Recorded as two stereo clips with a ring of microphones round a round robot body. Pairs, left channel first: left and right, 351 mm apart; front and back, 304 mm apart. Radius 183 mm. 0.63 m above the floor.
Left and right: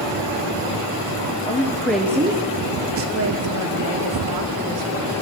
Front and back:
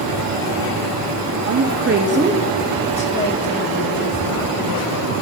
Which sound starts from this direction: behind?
A woman speaking, at 1.4 s.